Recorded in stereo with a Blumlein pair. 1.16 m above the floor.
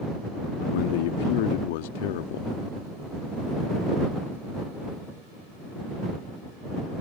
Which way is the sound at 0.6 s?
50° left.